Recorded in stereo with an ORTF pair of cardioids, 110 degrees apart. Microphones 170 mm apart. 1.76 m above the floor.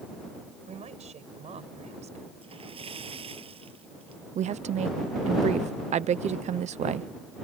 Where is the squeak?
I don't hear a squeak.